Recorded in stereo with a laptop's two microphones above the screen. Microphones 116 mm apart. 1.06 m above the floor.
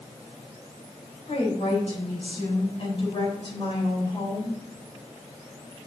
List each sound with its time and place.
1.3 s a woman speaking: 60° left (ahead or behind), 4 m; by 4.6 s 35° left (ahead or behind), 4 m